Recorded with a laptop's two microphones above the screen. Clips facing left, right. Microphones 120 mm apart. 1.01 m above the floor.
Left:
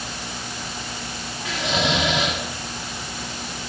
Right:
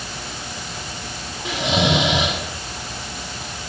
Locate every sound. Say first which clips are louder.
1.4 s snoring: right 4 dB; 20° right (ahead or behind), 2.5 m